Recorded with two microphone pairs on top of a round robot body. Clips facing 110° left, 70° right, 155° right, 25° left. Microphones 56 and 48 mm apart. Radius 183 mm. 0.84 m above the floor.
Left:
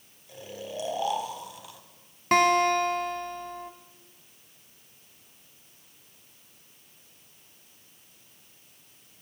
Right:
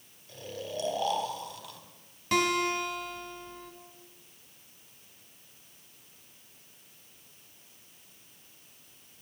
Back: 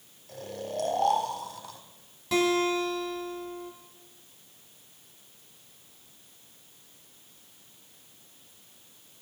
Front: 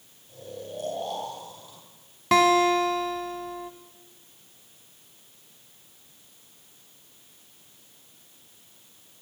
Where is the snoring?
175° right, 3.5 m.